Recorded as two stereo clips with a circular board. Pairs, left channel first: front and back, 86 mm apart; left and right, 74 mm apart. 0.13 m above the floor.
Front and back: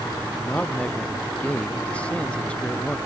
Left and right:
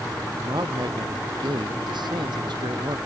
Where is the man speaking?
75° right.